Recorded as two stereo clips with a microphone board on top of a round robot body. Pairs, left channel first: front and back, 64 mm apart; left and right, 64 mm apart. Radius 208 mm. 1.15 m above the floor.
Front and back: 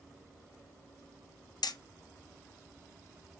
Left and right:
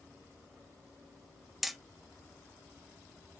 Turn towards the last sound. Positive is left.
turn(degrees=0)